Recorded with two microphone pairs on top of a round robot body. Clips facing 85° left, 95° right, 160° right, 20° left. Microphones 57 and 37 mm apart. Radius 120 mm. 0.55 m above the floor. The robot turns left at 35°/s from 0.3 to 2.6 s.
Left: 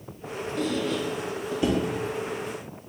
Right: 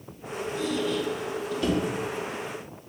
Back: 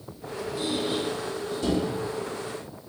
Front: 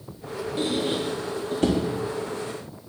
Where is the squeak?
45° left, 0.9 m; by 1.8 s straight ahead, 0.9 m.